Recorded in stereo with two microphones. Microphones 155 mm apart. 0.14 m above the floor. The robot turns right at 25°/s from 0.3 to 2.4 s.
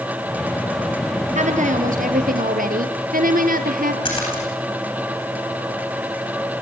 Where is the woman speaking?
50° right (ahead or behind), 2.5 m; by 4.0 s 65° right (ahead or behind), 2.5 m.